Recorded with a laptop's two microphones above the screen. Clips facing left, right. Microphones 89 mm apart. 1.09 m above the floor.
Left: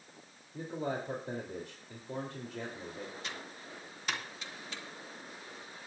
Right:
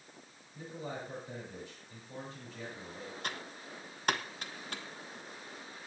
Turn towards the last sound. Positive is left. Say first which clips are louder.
# right 2 dB
turn(degrees=-50)  # may be behind; listen again after turning